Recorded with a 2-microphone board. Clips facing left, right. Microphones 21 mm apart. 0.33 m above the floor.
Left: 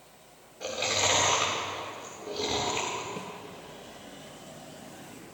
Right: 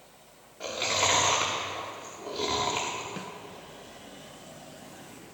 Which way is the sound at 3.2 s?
60° right (ahead or behind).